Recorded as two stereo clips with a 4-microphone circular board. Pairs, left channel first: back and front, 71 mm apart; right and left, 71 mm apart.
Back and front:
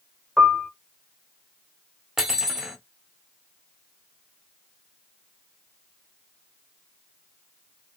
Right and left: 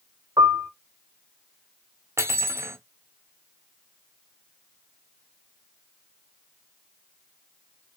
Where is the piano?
80° left, 0.7 m.